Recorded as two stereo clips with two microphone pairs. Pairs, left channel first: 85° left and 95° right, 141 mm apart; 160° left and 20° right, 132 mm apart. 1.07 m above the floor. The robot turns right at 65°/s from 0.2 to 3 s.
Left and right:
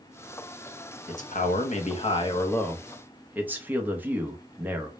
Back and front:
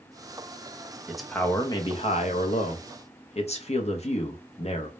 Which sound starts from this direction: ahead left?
A man speaking, at 1.1 s.